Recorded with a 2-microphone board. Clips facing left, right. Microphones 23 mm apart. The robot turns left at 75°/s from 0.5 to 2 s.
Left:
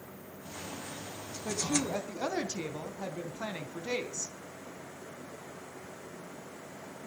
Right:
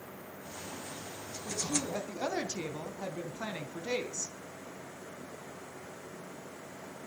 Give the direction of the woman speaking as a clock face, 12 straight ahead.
10 o'clock.